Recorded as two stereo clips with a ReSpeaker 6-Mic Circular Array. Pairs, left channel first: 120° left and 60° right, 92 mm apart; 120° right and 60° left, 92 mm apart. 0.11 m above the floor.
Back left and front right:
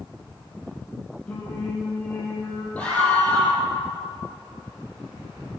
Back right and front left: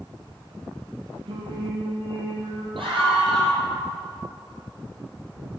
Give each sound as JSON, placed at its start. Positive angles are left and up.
{"t": 1.3, "sound": "singing", "azimuth_deg": 45, "distance_m": 4.0}
{"t": 2.8, "sound": "a scream", "azimuth_deg": 45, "distance_m": 4.5}